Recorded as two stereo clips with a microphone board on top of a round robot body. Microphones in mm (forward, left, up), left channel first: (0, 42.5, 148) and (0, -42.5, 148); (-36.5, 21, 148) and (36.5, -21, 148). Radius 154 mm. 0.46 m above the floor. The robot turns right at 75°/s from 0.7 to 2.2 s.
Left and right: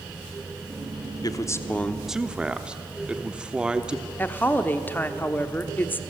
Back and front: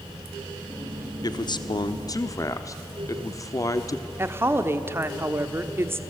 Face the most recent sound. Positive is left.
turn(degrees=25)